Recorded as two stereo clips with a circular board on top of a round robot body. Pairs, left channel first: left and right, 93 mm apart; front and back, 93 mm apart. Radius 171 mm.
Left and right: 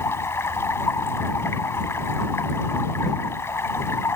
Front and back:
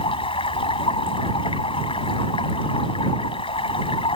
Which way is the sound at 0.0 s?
25° left.